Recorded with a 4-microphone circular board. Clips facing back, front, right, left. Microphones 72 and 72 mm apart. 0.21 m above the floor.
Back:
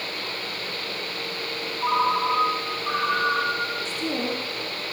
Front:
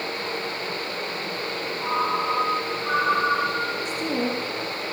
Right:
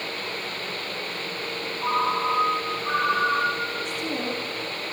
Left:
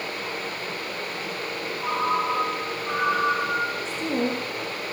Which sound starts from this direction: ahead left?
A woman speaking, at 3.9 s.